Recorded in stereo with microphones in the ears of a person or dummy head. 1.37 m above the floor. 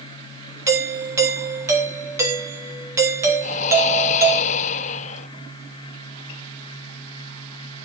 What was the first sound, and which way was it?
A doorbell, 15° right (ahead or behind).